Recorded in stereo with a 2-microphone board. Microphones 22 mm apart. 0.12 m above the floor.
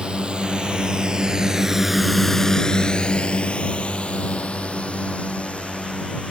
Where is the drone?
60° right (ahead or behind); by 6.3 s 75° left (ahead or behind).